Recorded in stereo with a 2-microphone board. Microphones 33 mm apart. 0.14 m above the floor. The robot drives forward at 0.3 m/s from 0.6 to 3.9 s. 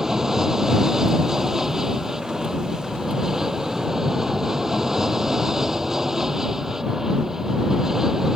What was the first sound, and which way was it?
An aircraft, 15° right (ahead or behind).